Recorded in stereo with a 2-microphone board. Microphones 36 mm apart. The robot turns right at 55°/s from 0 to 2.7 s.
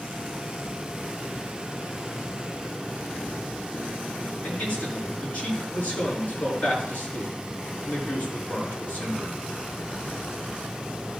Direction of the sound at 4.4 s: 40° left (ahead or behind).